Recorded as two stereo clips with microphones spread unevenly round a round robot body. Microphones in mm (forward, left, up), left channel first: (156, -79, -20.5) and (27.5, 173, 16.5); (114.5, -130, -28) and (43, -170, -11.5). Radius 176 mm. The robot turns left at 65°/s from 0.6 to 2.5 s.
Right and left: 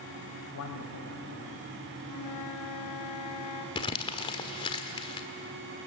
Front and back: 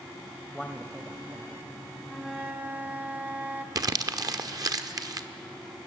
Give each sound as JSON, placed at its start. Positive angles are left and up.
{"t": 0.5, "sound": "a man speaking", "azimuth_deg": -55, "distance_m": 1.9}
{"t": 2.0, "sound": "a flute", "azimuth_deg": -50, "distance_m": 2.0}
{"t": 3.8, "sound": "crumpling", "azimuth_deg": -120, "distance_m": 1.2}